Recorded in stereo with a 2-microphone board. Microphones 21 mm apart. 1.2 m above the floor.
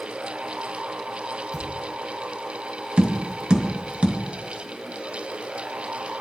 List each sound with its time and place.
1.5 s a thud: centre (ahead or behind), 8.5 m
3.0 s tapping: 70° right (ahead or behind), 1.7 m